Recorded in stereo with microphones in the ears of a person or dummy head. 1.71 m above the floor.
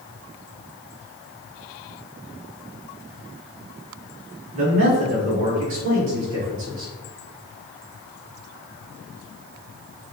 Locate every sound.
4.5 s a man speaking: 40° right (ahead or behind), 1.2 m; by 6.9 s 35° right (ahead or behind), 3 m